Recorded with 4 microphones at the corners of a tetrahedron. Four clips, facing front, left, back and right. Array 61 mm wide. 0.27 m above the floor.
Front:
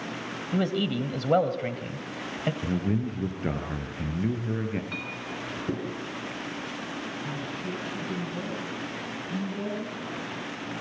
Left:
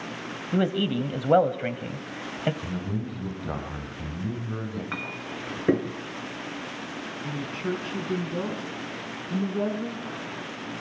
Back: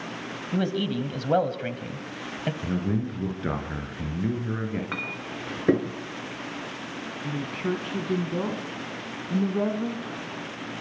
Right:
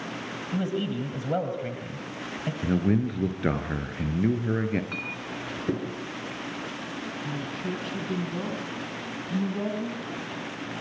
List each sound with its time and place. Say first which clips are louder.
0.5 s a man speaking: left 5 dB, even; 90° left, 1.8 m
2.6 s a man speaking: right 7 dB, back 2 dB; 90° right, 4.5 m
4.9 s a clink: even, back 2 dB; 145° left, 2 m
7.2 s a woman speaking: left 4 dB, back 4 dB; 165° left, 2.5 m